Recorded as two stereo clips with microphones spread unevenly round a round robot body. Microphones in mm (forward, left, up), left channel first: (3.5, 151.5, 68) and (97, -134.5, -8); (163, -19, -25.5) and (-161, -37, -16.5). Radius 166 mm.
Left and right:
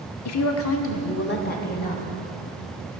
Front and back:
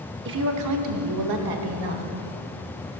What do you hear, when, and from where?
0.2 s a woman speaking: 140° left, 1.0 m; by 2.0 s straight behind, 2.0 m